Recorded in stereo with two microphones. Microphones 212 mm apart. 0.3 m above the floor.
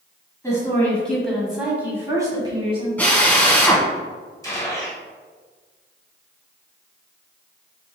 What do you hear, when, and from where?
0.4 s a woman speaking: 15° left (ahead or behind), 2.0 m; by 2.9 s 25° right (ahead or behind), 1.8 m
3.0 s a drill: 5° left (ahead or behind), 1.1 m
4.4 s a gunshot: 15° left (ahead or behind), 1.2 m